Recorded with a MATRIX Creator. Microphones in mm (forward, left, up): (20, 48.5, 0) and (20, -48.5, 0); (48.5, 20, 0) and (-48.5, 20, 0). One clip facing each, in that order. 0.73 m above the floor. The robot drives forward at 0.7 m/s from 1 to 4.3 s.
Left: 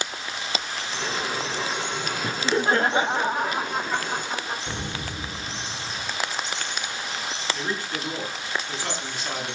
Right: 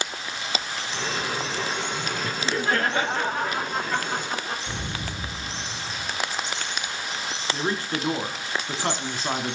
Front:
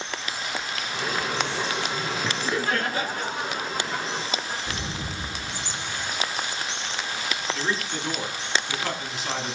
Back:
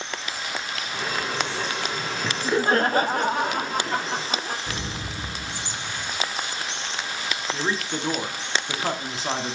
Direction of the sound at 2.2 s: 95° left.